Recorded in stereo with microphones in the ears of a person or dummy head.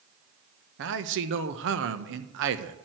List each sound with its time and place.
0.8 s a man speaking: 60° right (ahead or behind), 1.1 m